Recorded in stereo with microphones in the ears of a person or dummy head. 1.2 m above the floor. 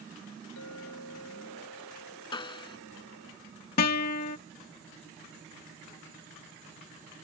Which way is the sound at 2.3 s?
25° left (ahead or behind).